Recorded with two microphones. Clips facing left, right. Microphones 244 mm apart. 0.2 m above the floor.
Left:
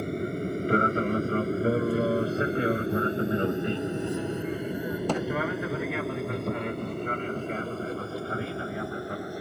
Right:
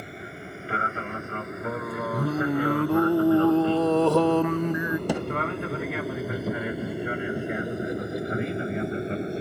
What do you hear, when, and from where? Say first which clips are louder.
0.0 s an aircraft: left 10 dB; 45° left (ahead or behind); by 9.4 s 25° right (ahead or behind)
2.1 s singing: right 1 dB; 80° right
5.1 s a thud: left 2 dB; 10° right (ahead or behind)